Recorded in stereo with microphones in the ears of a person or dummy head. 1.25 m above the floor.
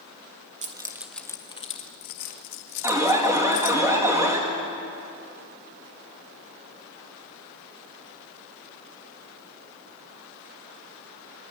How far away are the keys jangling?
About 0.9 m.